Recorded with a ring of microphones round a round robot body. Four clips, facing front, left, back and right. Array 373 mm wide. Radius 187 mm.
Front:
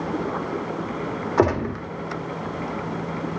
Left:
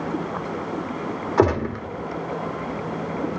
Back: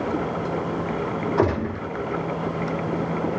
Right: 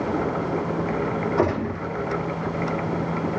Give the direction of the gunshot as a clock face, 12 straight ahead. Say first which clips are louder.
Left 7 dB, front 4 dB; 10 o'clock.